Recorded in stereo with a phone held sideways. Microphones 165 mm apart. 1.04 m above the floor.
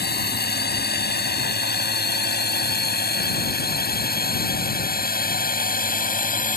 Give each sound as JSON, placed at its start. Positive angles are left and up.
{"t": 0.0, "sound": "a drone", "side_deg": 80}